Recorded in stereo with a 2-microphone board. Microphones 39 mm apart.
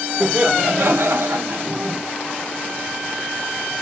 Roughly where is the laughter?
Right.